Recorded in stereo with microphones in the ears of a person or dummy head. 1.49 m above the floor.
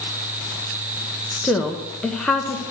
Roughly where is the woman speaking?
Centre.